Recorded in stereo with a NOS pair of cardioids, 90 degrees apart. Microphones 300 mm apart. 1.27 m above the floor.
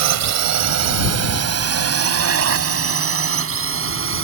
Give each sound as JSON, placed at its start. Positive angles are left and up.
{"t": 0.0, "sound": "a drone", "azimuth_deg": -70}